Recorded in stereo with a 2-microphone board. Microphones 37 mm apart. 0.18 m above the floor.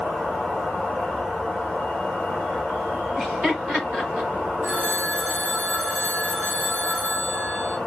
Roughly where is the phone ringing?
Right.